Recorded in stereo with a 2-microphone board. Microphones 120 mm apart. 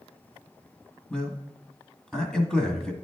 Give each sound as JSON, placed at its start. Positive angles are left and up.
{"t": 1.1, "sound": "a man speaking", "side_deg": 5, "distance_m": 1.4}